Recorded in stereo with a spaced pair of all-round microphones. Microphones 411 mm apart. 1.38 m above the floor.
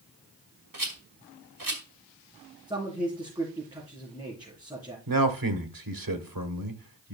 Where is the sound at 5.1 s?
55° right (ahead or behind), 1.1 m.